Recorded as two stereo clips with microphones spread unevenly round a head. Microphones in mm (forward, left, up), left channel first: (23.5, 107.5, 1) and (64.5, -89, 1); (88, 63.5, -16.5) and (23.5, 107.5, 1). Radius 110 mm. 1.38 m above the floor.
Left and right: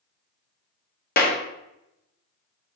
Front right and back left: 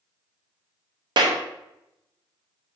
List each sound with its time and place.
1.2 s a clap: 155° left, 1.0 m